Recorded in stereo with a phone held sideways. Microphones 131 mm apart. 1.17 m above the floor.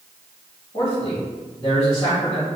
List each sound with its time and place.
0.7 s a man speaking: 50° left (ahead or behind), 1.8 m